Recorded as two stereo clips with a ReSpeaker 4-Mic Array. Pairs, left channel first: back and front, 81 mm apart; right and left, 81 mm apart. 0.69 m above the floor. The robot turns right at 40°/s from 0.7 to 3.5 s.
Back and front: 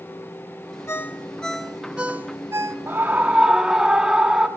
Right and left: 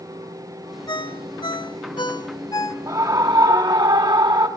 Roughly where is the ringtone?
Behind right.